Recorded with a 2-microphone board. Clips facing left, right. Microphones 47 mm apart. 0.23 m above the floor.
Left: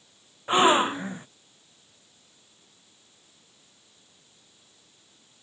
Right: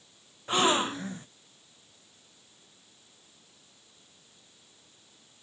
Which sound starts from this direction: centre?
A gasp, at 0.5 s.